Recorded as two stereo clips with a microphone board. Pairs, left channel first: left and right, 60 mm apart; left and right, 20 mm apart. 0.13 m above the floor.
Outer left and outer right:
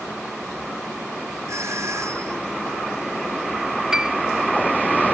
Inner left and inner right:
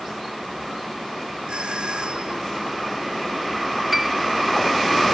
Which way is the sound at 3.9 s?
10° right (ahead or behind).